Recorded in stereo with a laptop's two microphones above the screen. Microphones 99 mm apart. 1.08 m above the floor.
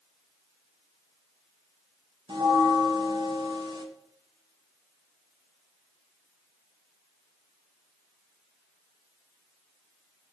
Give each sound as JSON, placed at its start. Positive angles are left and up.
{"t": 2.3, "sound": "a bell", "side_deg": -50, "distance_m": 1.2}